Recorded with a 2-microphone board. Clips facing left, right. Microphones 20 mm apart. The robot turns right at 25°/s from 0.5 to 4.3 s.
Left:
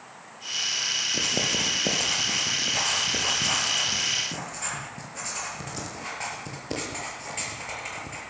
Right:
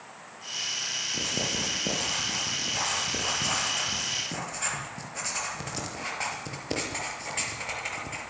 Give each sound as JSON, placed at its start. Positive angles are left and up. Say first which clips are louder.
{"t": 1.1, "sound": "writing", "louder": "left 4 dB", "side_deg": 65, "distance_m": 7.0}